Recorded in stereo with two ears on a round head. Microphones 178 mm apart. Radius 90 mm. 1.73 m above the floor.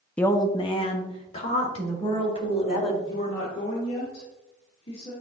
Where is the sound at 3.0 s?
30° left (ahead or behind), 1.9 m.